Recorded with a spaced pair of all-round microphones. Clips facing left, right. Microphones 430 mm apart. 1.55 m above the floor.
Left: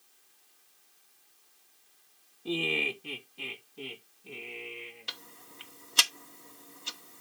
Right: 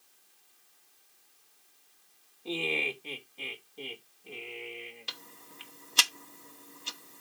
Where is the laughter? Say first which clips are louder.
Left 2 dB; 30° left (ahead or behind), 1.0 m; by 5.1 s 20° left (ahead or behind), 2.5 m.